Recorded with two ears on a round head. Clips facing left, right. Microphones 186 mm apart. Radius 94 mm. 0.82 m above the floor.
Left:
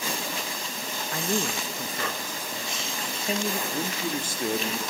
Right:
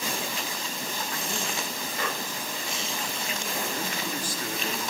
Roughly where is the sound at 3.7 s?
Left.